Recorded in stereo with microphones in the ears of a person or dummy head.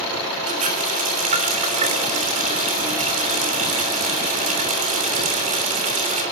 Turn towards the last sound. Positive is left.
turn(degrees=-35)  # may be behind; listen again after turning